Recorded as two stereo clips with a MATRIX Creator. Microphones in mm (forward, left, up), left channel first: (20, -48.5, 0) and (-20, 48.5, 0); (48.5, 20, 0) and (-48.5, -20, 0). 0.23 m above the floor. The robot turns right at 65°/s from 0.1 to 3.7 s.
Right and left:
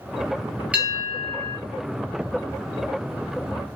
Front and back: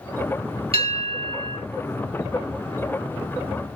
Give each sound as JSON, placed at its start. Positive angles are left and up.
{"t": 0.7, "sound": "a bell", "azimuth_deg": -170, "distance_m": 2.5}